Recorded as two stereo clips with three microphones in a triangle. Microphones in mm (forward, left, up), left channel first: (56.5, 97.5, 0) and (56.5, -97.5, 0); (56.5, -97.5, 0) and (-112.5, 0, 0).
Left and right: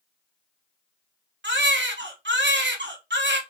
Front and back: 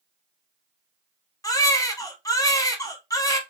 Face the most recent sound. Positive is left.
turn(degrees=-105)